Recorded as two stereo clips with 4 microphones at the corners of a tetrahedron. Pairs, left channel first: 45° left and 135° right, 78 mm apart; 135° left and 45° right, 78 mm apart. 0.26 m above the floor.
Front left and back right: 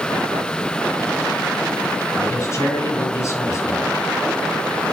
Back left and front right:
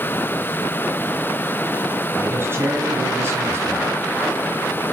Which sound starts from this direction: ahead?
A man speaking, at 2.2 s.